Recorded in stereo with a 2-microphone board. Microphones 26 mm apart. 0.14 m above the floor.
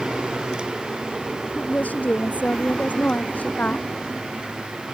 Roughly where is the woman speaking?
Left.